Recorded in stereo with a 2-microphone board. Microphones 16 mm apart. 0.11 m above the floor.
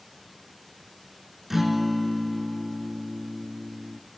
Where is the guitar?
10° right (ahead or behind), 0.5 m.